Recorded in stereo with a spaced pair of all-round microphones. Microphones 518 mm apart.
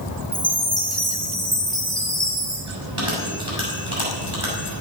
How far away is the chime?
About 3.5 m.